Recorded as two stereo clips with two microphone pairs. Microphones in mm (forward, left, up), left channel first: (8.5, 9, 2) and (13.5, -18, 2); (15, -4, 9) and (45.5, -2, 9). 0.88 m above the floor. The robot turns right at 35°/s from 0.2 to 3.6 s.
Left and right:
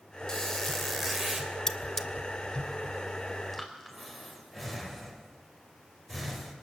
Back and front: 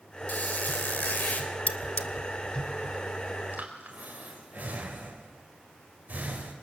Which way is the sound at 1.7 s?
170° left.